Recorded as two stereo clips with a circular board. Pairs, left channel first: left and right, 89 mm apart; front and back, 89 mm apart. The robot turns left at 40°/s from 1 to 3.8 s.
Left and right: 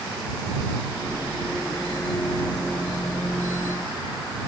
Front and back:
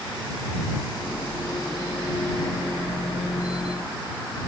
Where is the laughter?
I don't hear laughter.